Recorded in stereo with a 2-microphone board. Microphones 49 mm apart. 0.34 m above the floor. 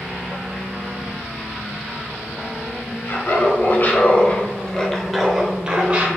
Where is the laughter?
50° left (ahead or behind), 1.4 m; by 6.1 s 30° right (ahead or behind), 1.0 m.